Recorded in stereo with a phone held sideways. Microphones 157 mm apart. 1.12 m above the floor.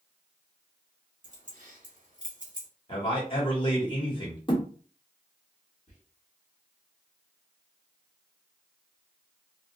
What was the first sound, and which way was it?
Keys jangling, 55° right (ahead or behind).